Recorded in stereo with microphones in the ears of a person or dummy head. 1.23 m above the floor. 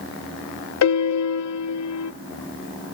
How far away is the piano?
About 0.8 m.